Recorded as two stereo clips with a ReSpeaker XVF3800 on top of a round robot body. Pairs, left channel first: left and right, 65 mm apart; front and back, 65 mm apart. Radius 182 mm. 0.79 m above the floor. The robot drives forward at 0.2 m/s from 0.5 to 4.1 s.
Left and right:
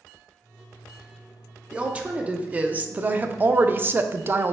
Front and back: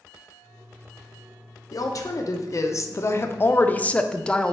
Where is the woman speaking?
20° right, 0.7 m; by 4.5 s 65° right, 0.5 m.